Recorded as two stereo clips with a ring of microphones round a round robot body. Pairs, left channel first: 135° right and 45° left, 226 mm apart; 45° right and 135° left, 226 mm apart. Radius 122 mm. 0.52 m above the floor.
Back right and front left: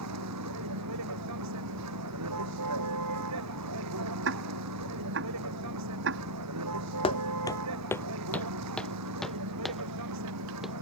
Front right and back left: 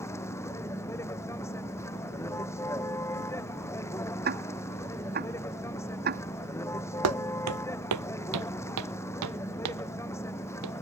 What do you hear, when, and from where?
0.0 s a vehicle: 35° left
4.2 s ticking: 85° left
7.0 s footsteps: 160° left; by 10.7 s 135° left